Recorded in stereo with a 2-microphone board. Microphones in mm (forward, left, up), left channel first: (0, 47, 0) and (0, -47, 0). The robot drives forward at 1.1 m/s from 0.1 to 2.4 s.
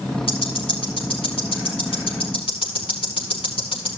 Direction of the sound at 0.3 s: 75° left (ahead or behind).